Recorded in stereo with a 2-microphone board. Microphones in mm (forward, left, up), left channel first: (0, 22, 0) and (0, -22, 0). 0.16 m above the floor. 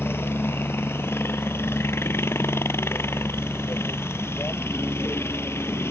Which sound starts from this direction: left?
A helicopter, at 0.0 s.